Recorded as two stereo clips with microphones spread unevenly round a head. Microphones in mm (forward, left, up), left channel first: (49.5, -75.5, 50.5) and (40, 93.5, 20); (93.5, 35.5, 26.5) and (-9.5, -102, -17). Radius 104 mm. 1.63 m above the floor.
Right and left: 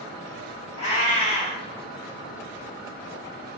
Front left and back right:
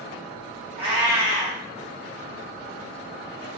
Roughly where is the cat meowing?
Behind right.